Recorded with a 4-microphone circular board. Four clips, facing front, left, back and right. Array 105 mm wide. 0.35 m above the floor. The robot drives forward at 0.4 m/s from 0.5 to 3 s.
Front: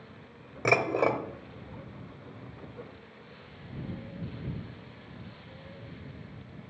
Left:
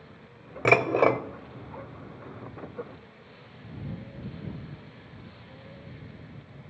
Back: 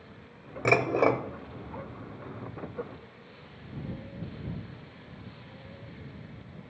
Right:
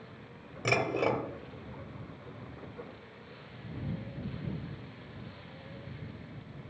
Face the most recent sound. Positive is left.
turn(degrees=150)